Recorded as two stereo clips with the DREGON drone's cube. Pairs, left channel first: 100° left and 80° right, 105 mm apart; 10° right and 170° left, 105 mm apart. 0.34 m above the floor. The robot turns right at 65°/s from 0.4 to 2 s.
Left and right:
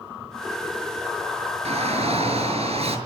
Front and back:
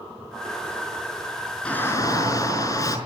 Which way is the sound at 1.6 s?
90° right.